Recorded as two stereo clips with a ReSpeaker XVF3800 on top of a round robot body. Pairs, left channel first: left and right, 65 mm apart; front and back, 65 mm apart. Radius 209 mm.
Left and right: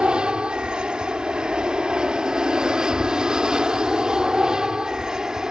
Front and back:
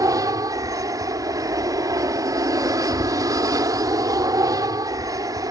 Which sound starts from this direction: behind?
An aircraft, at 0.0 s.